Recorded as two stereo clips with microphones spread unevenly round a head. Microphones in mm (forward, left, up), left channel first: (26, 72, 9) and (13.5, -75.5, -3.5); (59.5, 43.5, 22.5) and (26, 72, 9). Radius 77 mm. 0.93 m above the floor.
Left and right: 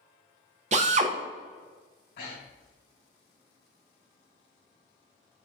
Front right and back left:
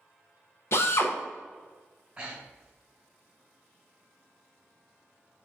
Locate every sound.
0.7 s a drill: 80° right, 0.9 m
2.2 s breathing: 75° left, 3 m